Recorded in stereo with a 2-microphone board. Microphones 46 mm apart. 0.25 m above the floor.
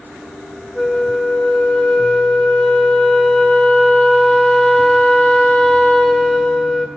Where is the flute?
15° left (ahead or behind), 0.8 m.